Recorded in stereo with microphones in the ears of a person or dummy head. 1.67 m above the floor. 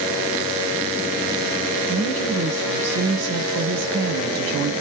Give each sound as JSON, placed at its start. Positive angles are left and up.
{"t": 1.9, "sound": "a woman speaking", "side_deg": -75, "distance_m": 1.0}